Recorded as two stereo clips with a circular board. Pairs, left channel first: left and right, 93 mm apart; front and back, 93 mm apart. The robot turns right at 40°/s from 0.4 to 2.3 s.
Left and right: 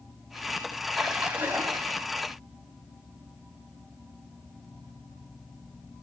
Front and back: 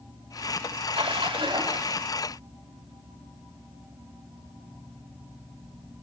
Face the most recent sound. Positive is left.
turn(degrees=-125)